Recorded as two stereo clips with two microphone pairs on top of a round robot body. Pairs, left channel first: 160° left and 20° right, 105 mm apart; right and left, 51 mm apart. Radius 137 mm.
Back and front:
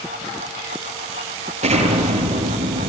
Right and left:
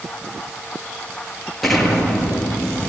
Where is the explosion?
Straight ahead, 7.5 m.